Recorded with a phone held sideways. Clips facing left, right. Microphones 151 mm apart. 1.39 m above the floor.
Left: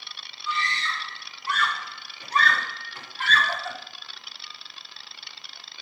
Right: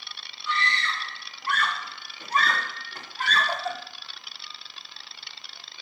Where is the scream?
70° right (ahead or behind), 3 m; by 3.8 s 35° right (ahead or behind), 4 m.